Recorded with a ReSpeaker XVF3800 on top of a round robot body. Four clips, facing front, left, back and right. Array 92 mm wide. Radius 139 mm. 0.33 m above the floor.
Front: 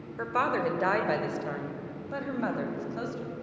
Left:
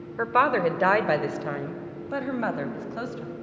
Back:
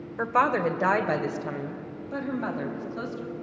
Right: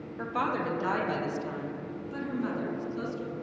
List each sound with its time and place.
0.2 s a woman speaking: 115° left, 1.7 m; by 3.3 s 80° left, 3 m